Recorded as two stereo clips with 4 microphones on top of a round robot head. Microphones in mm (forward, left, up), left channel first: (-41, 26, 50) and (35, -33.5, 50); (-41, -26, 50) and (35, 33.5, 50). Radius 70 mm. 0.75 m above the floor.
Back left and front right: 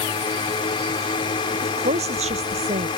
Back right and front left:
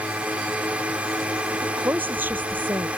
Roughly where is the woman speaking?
Ahead right.